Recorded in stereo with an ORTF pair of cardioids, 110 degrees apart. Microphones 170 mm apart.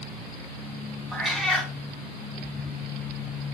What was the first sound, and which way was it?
A cat meowing, straight ahead.